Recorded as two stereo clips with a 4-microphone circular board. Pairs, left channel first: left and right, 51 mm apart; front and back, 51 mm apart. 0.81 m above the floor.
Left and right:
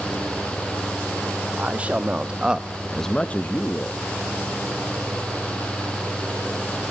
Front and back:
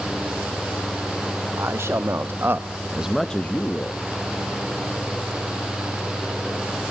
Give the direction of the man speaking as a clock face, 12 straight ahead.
5 o'clock.